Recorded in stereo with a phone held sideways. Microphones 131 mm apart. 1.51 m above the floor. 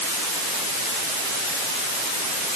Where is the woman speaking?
I don't hear a woman speaking.